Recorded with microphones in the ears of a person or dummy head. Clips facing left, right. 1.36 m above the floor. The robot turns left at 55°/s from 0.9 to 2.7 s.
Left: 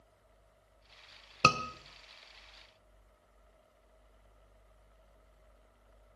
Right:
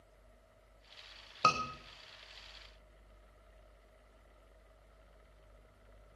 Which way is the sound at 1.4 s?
40° left (ahead or behind).